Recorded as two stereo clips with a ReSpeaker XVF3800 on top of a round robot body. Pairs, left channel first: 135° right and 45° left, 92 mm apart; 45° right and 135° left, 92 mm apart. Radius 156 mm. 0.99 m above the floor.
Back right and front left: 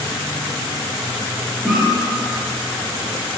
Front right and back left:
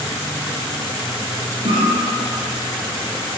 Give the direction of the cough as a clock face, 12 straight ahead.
8 o'clock.